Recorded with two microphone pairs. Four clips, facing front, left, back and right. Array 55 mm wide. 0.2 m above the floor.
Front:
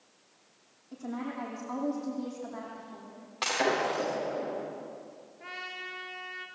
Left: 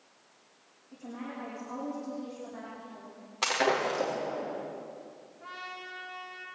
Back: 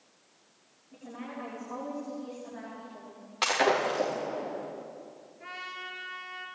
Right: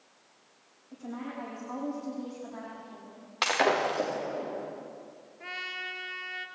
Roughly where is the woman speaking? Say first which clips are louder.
Right 2 dB, front 5 dB; ahead right.